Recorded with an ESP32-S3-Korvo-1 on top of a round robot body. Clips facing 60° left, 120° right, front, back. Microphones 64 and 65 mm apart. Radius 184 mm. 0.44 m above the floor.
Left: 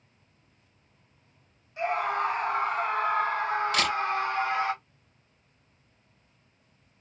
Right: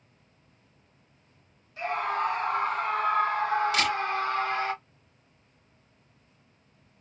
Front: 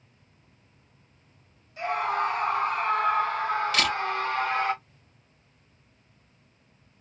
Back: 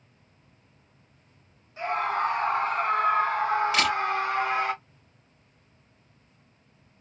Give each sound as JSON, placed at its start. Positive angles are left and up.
{"t": 1.8, "sound": "a scream", "azimuth_deg": 125, "distance_m": 2.5}
{"t": 3.7, "sound": "a camera shutter", "azimuth_deg": 100, "distance_m": 2.5}